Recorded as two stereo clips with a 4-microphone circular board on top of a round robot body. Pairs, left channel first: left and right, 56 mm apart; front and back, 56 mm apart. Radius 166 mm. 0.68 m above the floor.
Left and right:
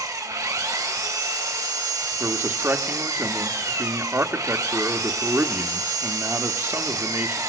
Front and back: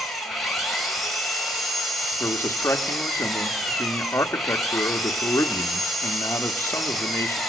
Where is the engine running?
90° right, 4.5 m.